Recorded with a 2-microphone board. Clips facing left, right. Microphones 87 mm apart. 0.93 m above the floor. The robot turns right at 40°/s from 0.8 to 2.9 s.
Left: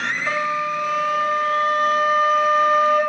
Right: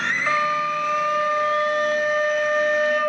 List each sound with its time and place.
0.3 s a flute: 50° right, 1.9 m; by 3.0 s 35° left, 1.9 m